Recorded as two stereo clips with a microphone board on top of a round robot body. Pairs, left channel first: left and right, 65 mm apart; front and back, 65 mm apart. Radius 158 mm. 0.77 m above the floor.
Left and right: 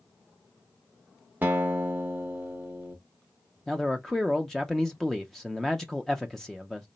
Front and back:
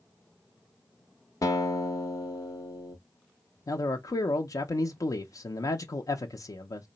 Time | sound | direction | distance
1.4 | a guitar | 25° right | 0.5 m
3.7 | a man speaking | 5° left | 0.6 m